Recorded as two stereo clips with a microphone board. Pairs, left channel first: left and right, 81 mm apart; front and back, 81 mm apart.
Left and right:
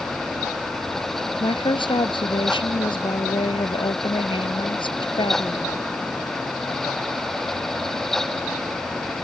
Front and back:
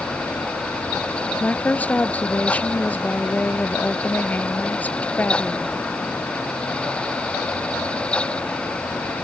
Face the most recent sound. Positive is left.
turn(degrees=75)